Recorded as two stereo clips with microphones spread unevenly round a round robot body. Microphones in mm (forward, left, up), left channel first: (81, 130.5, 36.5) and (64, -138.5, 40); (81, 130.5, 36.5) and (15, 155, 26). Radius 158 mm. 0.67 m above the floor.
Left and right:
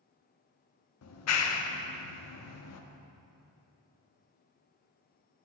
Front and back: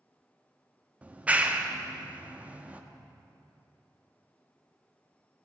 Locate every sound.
1.0 s a clap: 95° left, 0.8 m